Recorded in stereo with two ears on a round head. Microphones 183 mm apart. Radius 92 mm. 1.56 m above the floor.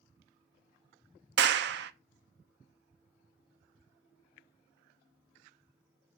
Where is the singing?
No singing in this recording.